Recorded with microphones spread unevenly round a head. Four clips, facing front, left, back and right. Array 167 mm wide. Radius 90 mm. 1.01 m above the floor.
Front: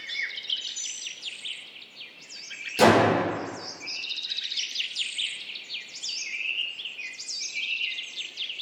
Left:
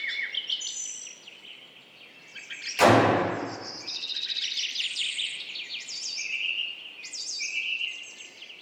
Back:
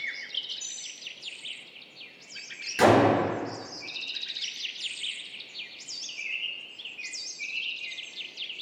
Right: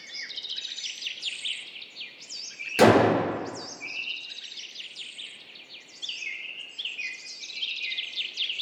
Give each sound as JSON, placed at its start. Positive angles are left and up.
{"t": 2.8, "sound": "a gunshot", "azimuth_deg": -95, "distance_m": 2.5}